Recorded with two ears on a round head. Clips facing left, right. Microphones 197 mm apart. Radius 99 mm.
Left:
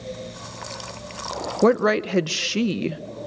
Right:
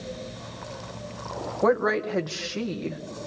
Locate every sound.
1.6 s a woman speaking: 40° left (ahead or behind), 0.7 m